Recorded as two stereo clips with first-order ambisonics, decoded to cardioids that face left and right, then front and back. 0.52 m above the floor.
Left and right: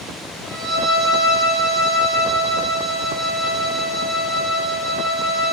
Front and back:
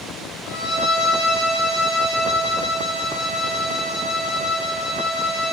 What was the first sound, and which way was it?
A violin, 30° right.